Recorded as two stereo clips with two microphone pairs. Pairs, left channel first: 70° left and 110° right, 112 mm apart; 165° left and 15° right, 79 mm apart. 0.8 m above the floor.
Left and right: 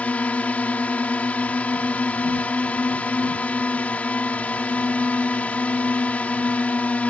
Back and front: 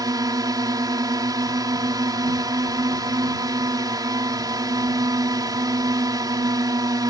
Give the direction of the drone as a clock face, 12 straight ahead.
12 o'clock.